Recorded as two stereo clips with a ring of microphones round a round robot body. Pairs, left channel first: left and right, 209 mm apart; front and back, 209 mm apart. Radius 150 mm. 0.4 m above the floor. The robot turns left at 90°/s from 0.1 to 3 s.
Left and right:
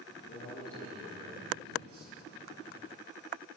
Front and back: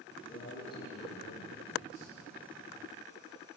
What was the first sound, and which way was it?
A man speaking, 55° left.